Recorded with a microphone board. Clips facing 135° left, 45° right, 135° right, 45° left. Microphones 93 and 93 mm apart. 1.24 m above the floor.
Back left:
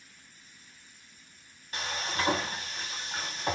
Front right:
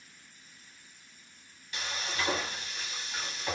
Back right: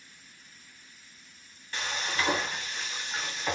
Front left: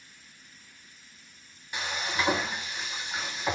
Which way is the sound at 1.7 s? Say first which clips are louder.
Back left 2 dB, front left 1 dB; 115° left.